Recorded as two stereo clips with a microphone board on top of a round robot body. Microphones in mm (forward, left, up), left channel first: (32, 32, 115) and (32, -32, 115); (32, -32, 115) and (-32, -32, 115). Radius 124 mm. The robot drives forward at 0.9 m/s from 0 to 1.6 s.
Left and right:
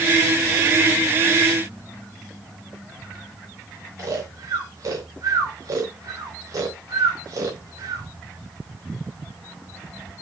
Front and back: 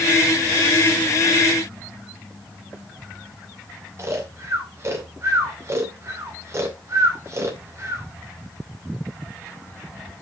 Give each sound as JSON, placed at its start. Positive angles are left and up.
{"t": 4.0, "sound": "snoring", "azimuth_deg": -135, "distance_m": 2.5}